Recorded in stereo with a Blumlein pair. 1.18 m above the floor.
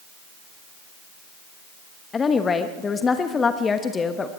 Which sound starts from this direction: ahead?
A woman speaking, at 2.1 s.